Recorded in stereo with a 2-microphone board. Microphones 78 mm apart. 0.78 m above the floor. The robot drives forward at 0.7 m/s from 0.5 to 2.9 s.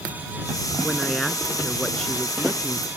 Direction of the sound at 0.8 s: 5° left (ahead or behind).